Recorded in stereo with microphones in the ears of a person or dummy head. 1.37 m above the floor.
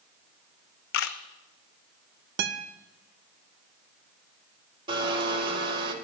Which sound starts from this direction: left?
A camera shutter, at 0.9 s.